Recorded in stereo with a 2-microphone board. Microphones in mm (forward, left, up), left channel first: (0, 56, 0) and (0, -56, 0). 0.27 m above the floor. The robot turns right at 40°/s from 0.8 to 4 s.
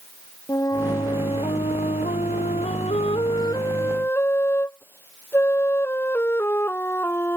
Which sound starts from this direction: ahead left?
A flute, at 0.5 s.